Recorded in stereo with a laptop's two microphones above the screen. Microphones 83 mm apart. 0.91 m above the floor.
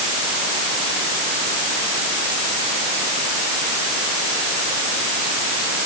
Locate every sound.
Only background noise.